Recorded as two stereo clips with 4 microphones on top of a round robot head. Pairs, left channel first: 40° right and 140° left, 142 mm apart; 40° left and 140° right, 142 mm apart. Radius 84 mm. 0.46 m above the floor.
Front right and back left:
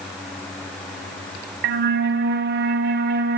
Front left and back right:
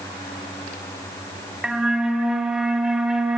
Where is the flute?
135° left, 0.5 m.